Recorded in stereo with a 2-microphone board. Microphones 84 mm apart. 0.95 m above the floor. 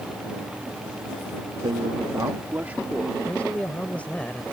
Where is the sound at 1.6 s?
80° right; by 3.2 s 10° right (ahead or behind).